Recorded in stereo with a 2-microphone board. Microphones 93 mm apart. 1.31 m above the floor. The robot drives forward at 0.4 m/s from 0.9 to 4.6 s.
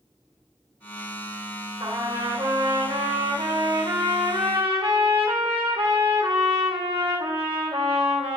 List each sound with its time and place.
1.8 s a trumpet: 65° right (ahead or behind), 3.5 m; by 8.4 s 80° right, 3.5 m